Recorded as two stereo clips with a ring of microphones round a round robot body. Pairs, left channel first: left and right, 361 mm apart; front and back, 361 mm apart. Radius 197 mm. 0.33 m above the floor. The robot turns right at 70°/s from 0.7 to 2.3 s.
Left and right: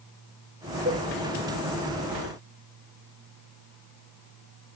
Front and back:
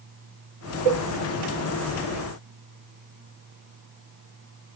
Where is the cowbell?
165° right, 0.8 m; by 1.1 s 150° right, 0.8 m.